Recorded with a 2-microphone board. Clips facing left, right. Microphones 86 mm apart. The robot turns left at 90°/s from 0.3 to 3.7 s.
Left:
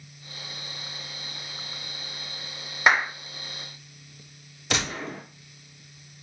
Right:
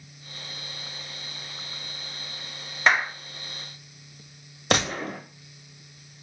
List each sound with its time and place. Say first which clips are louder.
2.9 s a clap: left 1 dB; 10° left (ahead or behind), 0.6 m; by 3.1 s 20° left (ahead or behind), 0.6 m
4.7 s a gunshot: right 4 dB; 50° right (ahead or behind), 0.7 m